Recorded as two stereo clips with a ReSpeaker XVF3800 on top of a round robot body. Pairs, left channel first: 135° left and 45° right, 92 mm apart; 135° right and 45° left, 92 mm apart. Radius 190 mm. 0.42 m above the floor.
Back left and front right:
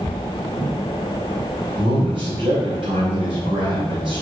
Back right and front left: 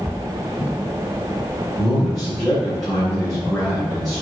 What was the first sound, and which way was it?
A man speaking, 50° right.